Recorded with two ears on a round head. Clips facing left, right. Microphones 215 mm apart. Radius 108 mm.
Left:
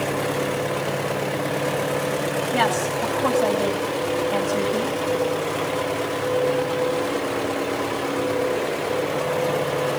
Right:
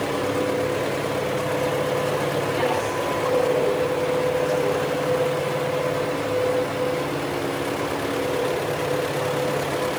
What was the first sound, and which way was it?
A woman speaking, 75° left (ahead or behind).